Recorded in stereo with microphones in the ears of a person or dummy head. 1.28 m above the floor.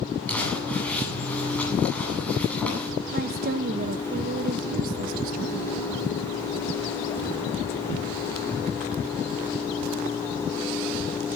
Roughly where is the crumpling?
Centre.